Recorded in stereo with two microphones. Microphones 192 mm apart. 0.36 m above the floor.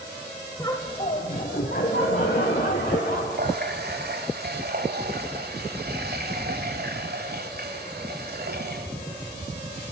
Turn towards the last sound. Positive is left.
turn(degrees=-60)  # may be behind; listen again after turning